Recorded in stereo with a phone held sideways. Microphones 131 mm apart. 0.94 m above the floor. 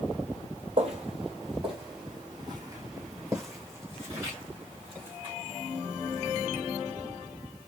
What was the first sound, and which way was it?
Footsteps, 45° right (ahead or behind).